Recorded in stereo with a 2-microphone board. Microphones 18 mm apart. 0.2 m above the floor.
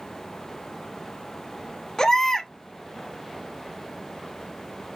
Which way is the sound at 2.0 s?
30° left (ahead or behind).